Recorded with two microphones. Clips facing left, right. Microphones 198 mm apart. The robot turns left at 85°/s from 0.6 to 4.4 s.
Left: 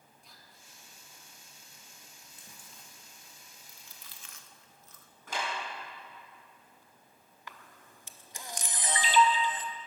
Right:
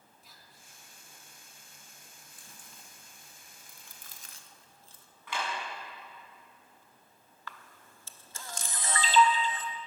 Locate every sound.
0.2 s whispering: centre (ahead or behind), 2.5 m; by 0.7 s 15° right (ahead or behind), 2.5 m
2.3 s chewing: 25° left (ahead or behind), 1.0 m; by 5.1 s 30° right (ahead or behind), 1.0 m
5.3 s a clap: 45° left (ahead or behind), 7 m
7.5 s a camera shutter: 15° left (ahead or behind), 0.9 m